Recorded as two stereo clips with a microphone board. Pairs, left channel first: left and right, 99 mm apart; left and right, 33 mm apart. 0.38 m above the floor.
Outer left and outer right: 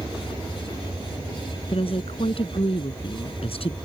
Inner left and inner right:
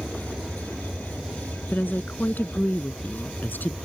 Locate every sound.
1.7 s a woman speaking: 75° left (ahead or behind)